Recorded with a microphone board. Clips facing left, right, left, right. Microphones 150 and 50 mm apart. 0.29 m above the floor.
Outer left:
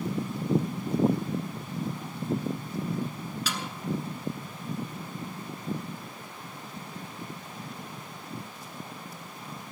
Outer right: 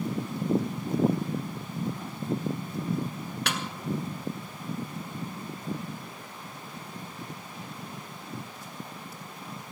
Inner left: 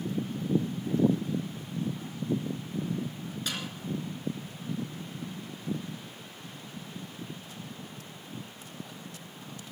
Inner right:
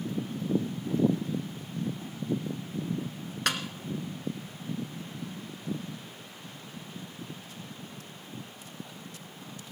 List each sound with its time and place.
3.5 s a snare drum: 70° right (ahead or behind), 1.3 m